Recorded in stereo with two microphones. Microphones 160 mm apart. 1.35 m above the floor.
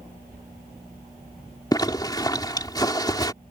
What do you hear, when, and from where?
1.7 s a zipper: 25° left (ahead or behind)